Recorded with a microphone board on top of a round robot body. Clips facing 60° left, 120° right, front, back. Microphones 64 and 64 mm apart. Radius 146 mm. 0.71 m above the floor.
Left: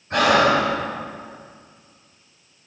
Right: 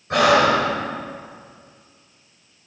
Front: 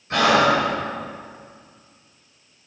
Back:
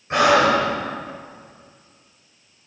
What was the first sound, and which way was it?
Breathing, 110° right.